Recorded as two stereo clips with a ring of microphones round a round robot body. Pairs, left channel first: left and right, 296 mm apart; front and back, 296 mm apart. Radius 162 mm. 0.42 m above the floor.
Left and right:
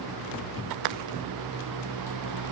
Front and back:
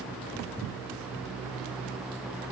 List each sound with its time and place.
Only background noise.